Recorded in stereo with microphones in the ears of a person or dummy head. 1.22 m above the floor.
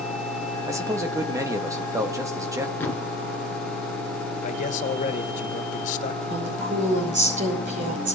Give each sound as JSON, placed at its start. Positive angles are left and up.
{"t": 0.7, "sound": "a man speaking", "side_deg": -20, "distance_m": 1.3}
{"t": 2.8, "sound": "a thud", "side_deg": 10, "distance_m": 2.5}
{"t": 4.4, "sound": "a man speaking", "side_deg": 45, "distance_m": 1.6}
{"t": 6.3, "sound": "a woman speaking", "side_deg": -45, "distance_m": 5.5}